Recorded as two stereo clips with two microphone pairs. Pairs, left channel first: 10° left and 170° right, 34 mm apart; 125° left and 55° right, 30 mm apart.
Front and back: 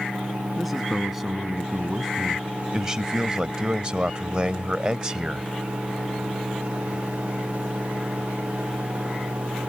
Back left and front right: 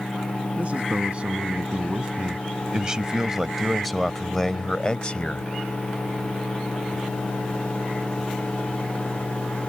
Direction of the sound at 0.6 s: 85° right.